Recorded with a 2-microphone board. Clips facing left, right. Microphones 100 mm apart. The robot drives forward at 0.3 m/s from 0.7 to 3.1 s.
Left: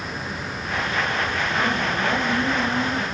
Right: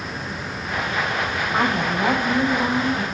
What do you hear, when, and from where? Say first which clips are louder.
1.5 s a woman speaking: right 4 dB; 80° right, 5 m; by 3.0 s 85° right, 5 m